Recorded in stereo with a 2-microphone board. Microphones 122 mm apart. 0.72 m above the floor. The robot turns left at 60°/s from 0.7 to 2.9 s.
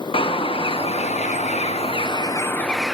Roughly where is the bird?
Behind left.